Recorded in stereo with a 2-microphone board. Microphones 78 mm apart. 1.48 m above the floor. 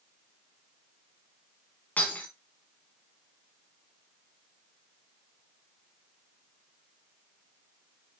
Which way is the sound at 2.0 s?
20° left (ahead or behind).